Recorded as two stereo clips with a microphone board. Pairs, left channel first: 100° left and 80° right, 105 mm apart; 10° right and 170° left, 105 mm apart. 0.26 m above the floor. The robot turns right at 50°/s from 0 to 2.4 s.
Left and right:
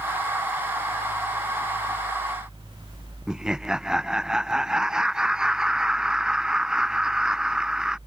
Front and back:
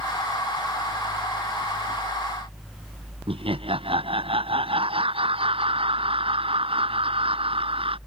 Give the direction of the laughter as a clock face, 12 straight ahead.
5 o'clock.